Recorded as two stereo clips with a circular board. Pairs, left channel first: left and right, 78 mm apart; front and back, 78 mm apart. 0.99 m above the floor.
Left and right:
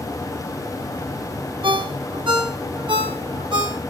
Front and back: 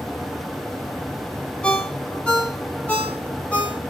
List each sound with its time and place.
1.6 s a ringtone: 75° right, 1.3 m